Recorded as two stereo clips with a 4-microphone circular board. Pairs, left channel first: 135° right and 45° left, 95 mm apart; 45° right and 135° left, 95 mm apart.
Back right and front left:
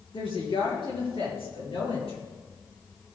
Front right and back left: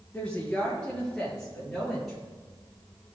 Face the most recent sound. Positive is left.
turn(degrees=-135)